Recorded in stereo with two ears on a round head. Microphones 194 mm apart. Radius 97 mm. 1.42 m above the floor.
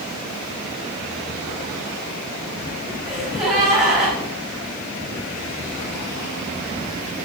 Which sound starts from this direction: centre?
A gasp, at 3.1 s.